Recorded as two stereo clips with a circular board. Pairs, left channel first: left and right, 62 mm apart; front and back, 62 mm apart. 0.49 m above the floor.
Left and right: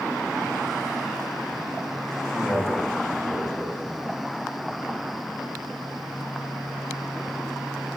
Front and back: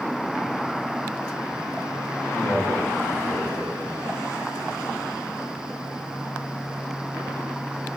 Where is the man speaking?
15° left, 4.5 m.